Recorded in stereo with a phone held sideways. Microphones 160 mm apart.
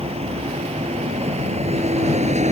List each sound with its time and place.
0.0 s a vehicle: 40° right (ahead or behind); by 2.5 s 45° right (ahead or behind)